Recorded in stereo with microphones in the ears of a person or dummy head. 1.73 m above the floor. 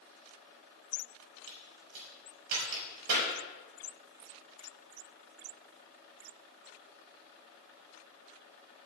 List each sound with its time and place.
1.5 s a crack: 60° right (ahead or behind), 6 m